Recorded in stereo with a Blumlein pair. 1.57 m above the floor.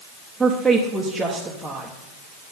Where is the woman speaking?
5° right, 1.2 m.